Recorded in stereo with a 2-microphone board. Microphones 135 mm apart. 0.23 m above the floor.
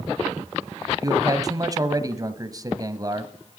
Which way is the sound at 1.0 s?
30° right (ahead or behind).